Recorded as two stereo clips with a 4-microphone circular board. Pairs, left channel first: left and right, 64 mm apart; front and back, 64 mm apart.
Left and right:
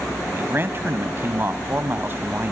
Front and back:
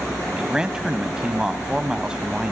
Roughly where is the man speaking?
Right.